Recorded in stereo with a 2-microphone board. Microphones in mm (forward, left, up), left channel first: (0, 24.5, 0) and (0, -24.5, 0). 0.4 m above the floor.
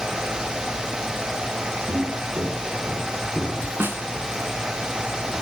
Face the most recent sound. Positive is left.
turn(degrees=-50)  # may be behind; listen again after turning